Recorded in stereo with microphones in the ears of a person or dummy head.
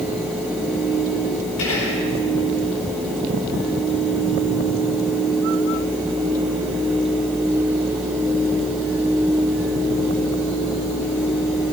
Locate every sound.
1.6 s whispering: 90° left, 4.5 m